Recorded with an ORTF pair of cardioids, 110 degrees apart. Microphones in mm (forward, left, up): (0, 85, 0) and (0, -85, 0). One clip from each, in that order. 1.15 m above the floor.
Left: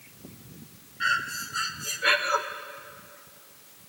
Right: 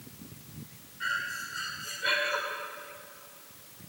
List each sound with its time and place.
1.0 s breathing: 50° left, 1.9 m